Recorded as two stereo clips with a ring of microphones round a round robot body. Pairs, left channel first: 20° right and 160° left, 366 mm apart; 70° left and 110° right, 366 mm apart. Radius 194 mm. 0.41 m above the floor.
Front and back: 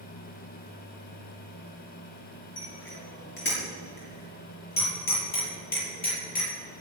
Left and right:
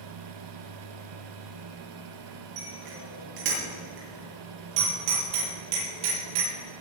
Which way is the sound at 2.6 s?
80° right.